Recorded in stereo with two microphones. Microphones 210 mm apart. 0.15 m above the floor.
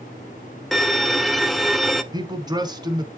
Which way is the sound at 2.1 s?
20° right (ahead or behind).